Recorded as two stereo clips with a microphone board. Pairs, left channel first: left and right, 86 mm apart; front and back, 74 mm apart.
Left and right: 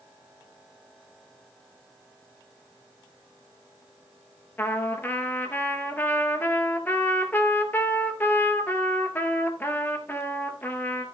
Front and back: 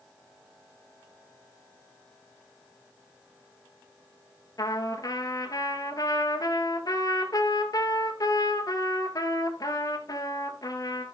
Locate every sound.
4.6 s a trumpet: 25° left, 1.5 m